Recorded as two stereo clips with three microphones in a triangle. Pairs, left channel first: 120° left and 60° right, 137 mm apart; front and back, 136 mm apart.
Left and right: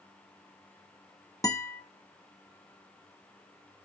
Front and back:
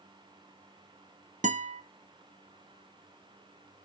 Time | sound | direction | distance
1.4 | a guitar | 175° right | 1.1 m